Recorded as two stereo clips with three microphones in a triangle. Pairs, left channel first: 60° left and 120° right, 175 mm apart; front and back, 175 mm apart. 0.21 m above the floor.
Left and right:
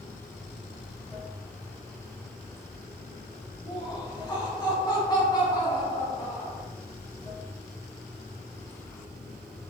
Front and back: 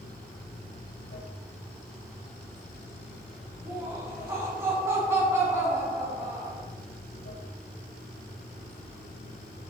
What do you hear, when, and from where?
0.0 s running water: 30° right, 0.9 m
3.6 s laughter: 115° left, 1.5 m